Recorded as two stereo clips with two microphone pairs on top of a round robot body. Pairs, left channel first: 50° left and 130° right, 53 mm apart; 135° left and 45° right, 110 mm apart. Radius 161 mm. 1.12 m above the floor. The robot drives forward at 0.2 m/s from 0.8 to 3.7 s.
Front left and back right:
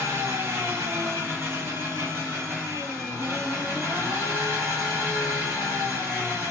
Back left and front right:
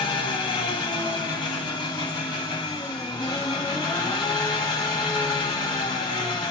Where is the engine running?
175° right, 1.4 m.